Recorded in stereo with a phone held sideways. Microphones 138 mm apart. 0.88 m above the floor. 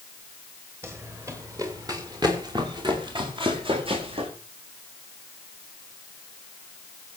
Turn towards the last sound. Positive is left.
turn(degrees=-40)  # may be behind; listen again after turning